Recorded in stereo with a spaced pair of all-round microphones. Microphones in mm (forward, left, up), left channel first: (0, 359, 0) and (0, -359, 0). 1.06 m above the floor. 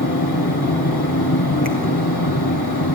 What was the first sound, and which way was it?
A fan, 30° left (ahead or behind).